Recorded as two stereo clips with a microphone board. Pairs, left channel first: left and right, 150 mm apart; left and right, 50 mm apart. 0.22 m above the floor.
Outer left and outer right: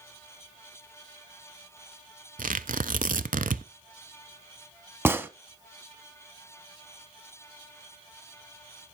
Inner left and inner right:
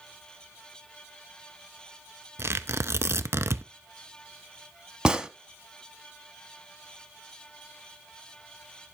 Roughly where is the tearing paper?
Right.